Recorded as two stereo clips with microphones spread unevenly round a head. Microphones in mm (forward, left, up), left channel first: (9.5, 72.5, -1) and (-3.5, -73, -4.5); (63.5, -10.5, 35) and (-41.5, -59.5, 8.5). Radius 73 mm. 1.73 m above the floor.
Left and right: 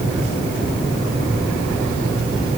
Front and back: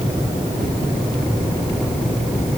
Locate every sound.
Only background noise.